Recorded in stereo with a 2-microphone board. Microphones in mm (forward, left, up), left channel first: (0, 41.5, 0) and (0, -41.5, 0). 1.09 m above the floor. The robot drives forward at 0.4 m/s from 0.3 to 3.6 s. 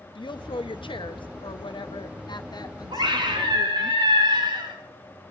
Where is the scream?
75° right (ahead or behind), 2.5 m; by 4.8 s 70° right (ahead or behind), 3 m.